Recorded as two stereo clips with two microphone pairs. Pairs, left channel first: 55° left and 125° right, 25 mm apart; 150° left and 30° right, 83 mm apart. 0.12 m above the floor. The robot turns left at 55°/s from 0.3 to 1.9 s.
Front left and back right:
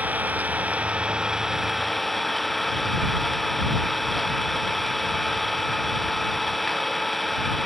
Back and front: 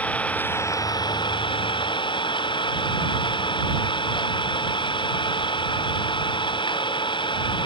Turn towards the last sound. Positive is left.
turn(degrees=135)